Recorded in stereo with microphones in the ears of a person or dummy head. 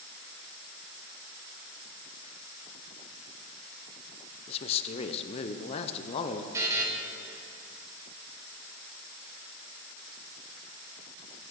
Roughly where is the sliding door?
No sliding door in this recording.